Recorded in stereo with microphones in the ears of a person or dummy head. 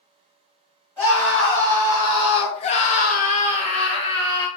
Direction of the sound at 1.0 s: 10° left (ahead or behind).